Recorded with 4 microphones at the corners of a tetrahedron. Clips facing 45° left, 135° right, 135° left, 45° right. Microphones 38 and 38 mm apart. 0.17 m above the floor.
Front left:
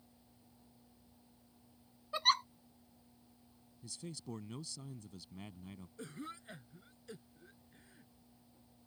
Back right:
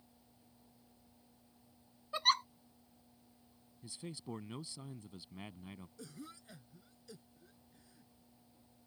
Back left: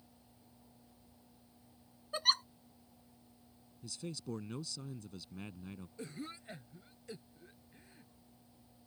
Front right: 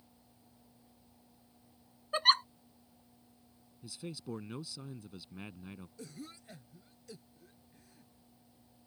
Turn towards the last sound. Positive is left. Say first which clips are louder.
# front left 4 dB, back left 6 dB
turn(degrees=85)